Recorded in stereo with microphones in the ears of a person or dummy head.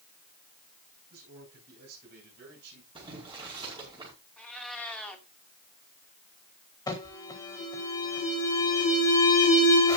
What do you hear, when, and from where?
1.1 s a man speaking: 50° right (ahead or behind), 8 m; by 2.9 s 60° right (ahead or behind), 7.5 m
3.0 s boiling: 25° right (ahead or behind), 5 m
4.4 s a cat meowing: 5° left (ahead or behind), 2.5 m
6.9 s an alarm: 20° left (ahead or behind), 4 m